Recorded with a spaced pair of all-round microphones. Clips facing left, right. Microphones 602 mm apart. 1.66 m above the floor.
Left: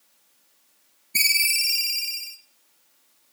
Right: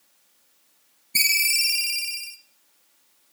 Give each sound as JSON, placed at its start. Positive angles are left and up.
{"t": 1.1, "sound": "a ringtone", "side_deg": -5, "distance_m": 1.1}